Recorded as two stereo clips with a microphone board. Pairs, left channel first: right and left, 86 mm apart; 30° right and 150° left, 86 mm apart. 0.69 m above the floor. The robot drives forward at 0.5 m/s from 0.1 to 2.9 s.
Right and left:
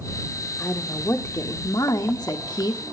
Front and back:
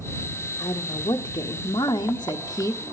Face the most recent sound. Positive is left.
turn(degrees=-75)